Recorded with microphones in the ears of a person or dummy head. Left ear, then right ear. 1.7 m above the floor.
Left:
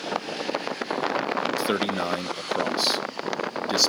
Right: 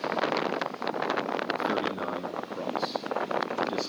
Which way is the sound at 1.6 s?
70° left (ahead or behind).